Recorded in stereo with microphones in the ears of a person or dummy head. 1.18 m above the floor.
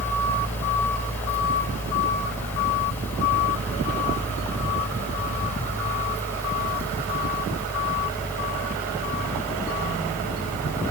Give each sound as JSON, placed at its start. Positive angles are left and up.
{"t": 0.0, "sound": "a fan", "side_deg": 10}